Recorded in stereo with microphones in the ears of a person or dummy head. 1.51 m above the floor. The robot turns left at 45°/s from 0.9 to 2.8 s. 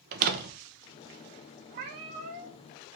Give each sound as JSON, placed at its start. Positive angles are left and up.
{"t": 0.1, "sound": "a door slam", "side_deg": -55, "distance_m": 1.1}
{"t": 1.7, "sound": "a cat meowing", "azimuth_deg": -105, "distance_m": 1.2}